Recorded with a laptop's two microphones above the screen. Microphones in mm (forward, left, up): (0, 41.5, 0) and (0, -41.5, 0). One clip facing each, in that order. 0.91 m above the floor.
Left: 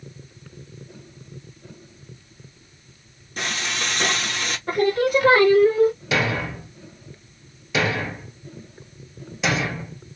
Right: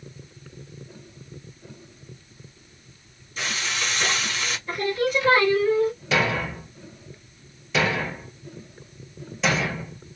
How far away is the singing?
About 1.6 m.